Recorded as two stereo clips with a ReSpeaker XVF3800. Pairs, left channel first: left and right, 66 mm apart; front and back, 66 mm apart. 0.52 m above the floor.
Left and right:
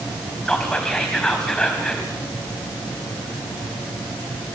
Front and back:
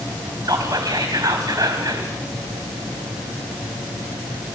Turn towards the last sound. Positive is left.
turn(degrees=170)